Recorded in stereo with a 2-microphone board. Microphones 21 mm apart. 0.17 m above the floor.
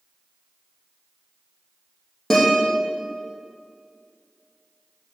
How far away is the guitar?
About 5 m.